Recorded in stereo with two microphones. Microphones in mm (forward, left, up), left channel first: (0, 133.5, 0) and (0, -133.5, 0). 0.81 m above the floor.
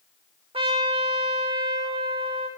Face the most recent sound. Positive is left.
turn(degrees=-20)  # may be behind; listen again after turning